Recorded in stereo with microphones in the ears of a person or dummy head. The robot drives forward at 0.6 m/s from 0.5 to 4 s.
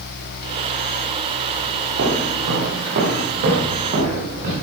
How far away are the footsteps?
About 6 m.